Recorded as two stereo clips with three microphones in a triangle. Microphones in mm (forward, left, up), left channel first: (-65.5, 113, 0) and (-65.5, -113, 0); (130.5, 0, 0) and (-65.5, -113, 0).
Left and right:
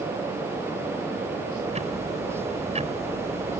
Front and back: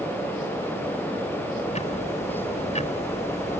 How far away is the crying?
I don't hear crying.